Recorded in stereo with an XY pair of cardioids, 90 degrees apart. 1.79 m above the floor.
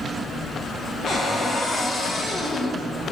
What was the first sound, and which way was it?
A cupboard door, 50° left.